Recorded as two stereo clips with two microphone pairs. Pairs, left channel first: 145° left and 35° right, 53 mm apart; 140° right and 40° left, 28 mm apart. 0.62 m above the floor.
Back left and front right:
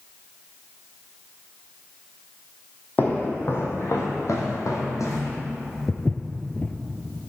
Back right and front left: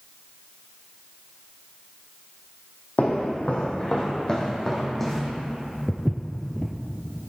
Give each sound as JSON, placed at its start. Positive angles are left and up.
{"t": 3.0, "sound": "footsteps", "azimuth_deg": -160, "distance_m": 1.7}
{"t": 5.9, "sound": "footsteps", "azimuth_deg": 115, "distance_m": 0.7}